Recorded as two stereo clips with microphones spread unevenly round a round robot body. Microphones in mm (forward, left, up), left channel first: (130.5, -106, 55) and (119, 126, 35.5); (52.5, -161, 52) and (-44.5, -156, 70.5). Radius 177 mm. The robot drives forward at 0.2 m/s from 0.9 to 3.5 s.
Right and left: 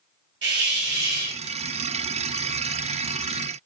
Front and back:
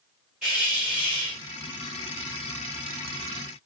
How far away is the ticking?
No ticking in this recording.